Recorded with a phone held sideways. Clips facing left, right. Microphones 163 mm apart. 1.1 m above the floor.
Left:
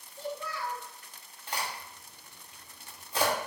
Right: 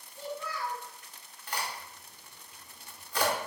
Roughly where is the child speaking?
Left.